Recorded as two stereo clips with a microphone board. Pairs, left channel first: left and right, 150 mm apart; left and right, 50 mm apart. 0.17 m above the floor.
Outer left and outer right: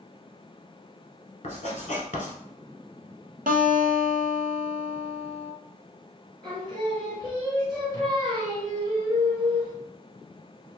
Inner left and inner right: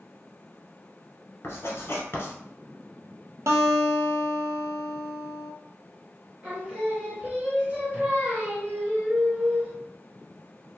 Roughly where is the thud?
I don't hear a thud.